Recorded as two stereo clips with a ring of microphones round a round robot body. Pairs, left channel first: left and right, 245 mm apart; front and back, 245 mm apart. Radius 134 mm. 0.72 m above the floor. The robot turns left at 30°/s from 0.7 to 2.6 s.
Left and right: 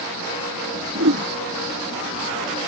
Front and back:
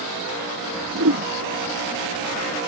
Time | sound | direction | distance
0.9 | a whoosh | 135° right | ?